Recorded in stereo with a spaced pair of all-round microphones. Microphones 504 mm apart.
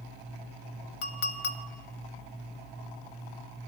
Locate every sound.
1.0 s a clink: 70° left (ahead or behind), 0.7 m